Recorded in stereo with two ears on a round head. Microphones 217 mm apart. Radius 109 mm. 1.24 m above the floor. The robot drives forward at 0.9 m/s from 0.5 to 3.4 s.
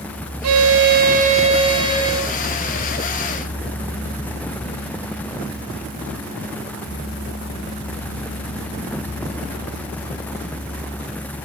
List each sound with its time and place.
0.4 s a violin: 70° right (ahead or behind), 0.5 m; by 2.4 s 15° right (ahead or behind), 1.9 m